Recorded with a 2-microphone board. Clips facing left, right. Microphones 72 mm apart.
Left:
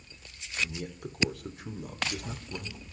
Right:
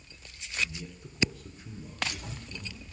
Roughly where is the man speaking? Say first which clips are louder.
Left 3 dB; left.